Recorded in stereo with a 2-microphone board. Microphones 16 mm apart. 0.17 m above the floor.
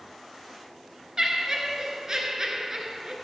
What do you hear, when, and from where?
1.2 s laughter: 35° right (ahead or behind), 2 m